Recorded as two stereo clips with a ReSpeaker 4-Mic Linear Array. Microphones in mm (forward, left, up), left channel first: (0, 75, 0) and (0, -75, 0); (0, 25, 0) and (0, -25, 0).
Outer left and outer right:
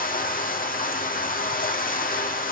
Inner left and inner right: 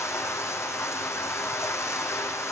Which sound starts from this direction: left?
Running water, at 0.0 s.